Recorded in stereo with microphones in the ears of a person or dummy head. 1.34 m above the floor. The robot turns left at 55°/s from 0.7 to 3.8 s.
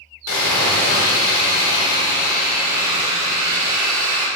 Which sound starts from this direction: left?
Sawing, at 0.3 s.